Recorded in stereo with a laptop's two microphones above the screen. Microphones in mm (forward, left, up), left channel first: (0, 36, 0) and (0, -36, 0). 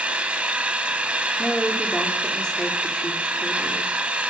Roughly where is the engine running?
Centre.